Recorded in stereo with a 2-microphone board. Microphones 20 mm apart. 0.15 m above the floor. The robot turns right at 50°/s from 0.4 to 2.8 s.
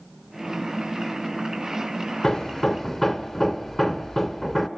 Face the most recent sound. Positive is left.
turn(degrees=20)  # may be behind; listen again after turning